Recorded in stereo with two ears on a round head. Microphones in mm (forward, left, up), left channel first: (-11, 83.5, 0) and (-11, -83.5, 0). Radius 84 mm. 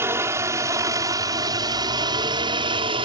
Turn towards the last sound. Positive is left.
turn(degrees=-30)  # may be behind; listen again after turning